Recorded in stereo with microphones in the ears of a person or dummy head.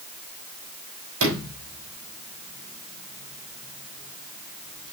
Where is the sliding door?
75° right (ahead or behind), 4 m.